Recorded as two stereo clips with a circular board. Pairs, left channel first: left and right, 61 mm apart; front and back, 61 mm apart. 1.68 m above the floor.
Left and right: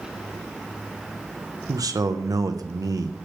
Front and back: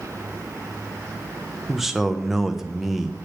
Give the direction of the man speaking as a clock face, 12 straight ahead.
3 o'clock.